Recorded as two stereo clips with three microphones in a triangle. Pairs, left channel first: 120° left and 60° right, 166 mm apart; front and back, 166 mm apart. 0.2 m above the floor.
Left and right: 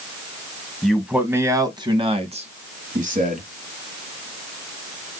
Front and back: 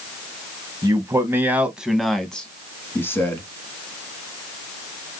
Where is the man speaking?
155° right, 1.0 m; by 3.4 s 70° right, 1.7 m.